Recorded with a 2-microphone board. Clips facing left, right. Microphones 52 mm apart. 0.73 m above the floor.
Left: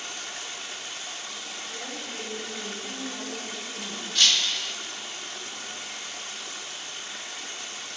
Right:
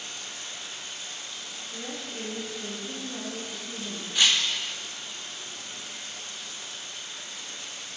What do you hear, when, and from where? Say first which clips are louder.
0.0 s running water: left 3 dB; 65° left (ahead or behind), 1.3 m
1.7 s a woman speaking: right 1 dB; 55° left (ahead or behind), 5 m
4.2 s breaking glass: even; 15° right (ahead or behind), 0.6 m